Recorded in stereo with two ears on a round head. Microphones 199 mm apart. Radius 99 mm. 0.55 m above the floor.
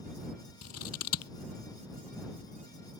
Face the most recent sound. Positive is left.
turn(degrees=80)